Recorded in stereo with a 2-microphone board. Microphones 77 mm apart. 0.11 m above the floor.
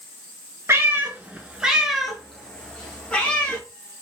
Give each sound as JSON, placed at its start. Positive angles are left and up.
{"t": 0.7, "sound": "a cat meowing", "side_deg": -35, "distance_m": 0.8}